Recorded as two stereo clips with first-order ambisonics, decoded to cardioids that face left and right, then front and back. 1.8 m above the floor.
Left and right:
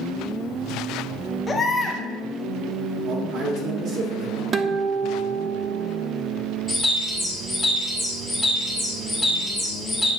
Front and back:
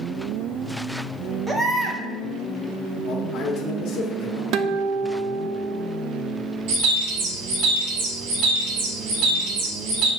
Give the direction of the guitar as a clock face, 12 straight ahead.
5 o'clock.